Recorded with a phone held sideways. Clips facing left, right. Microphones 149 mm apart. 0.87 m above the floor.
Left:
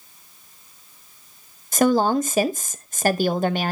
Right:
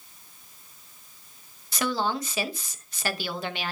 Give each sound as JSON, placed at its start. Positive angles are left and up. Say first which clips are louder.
{"t": 1.7, "sound": "a woman speaking", "louder": "left 10 dB", "side_deg": 45, "distance_m": 0.8}